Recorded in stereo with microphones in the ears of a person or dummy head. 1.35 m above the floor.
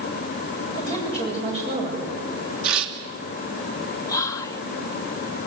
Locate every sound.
0.7 s a woman speaking: 35° right (ahead or behind), 8 m
2.6 s tearing paper: 75° right (ahead or behind), 2.5 m
4.1 s whispering: 20° left (ahead or behind), 0.8 m